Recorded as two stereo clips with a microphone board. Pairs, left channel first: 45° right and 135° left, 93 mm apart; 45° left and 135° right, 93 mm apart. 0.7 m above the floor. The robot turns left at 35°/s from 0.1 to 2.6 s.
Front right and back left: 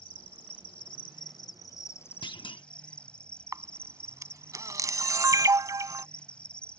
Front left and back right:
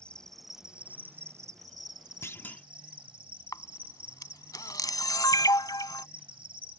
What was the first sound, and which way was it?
An insect, 35° right.